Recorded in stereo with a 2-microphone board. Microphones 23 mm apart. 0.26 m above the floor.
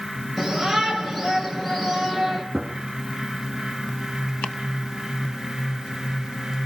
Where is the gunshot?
35° right (ahead or behind), 1.8 m.